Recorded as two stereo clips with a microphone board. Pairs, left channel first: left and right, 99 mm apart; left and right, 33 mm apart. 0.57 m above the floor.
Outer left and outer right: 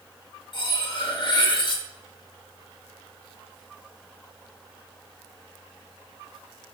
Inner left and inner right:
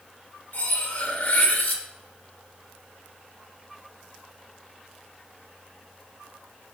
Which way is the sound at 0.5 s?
50° left (ahead or behind).